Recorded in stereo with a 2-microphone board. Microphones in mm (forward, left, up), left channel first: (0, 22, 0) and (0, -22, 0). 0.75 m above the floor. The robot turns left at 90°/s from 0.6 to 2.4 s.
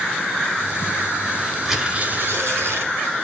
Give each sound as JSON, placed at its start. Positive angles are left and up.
{"t": 1.6, "sound": "tearing paper", "azimuth_deg": 0, "distance_m": 3.5}